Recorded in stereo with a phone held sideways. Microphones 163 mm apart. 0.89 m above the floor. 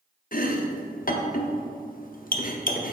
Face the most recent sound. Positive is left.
turn(degrees=60)  # may be behind; listen again after turning